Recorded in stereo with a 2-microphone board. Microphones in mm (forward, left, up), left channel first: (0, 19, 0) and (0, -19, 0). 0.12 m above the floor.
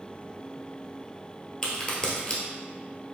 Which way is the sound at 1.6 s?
20° left (ahead or behind).